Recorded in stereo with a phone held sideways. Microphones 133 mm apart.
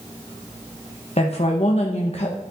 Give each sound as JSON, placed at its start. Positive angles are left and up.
{"t": 1.2, "sound": "a woman speaking", "side_deg": 50, "distance_m": 0.7}